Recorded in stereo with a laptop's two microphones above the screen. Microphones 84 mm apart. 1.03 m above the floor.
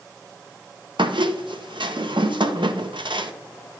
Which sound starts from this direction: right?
A squeak, at 1.0 s.